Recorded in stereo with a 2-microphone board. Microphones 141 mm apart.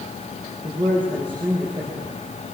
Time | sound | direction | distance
0.6 | a man speaking | 35° right (ahead or behind) | 6 m